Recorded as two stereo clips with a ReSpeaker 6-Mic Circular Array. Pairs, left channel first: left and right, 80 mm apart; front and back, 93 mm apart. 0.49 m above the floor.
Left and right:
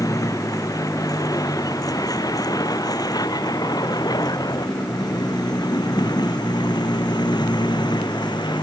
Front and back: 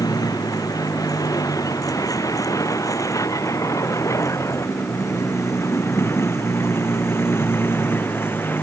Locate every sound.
0.0 s a vehicle: 45° left; by 8.6 s 65° left